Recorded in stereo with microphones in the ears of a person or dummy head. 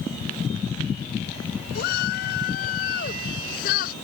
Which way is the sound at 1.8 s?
55° left (ahead or behind).